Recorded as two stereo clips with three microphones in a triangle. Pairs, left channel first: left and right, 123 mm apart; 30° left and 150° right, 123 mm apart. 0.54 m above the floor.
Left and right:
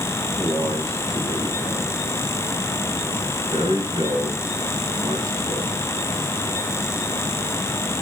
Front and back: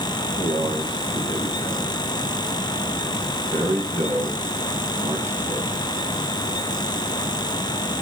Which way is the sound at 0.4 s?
140° right.